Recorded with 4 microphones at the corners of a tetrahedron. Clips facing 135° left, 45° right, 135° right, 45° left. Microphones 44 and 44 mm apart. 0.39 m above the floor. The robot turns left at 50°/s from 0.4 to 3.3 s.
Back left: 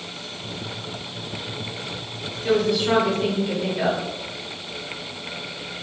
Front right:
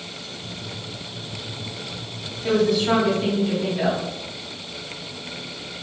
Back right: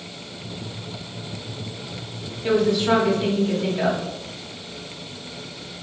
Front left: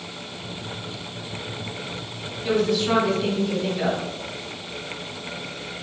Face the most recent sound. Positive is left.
turn(degrees=-175)